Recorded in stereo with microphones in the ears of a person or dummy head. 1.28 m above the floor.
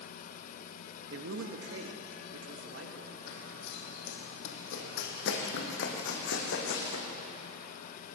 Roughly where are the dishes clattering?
I don't hear dishes clattering.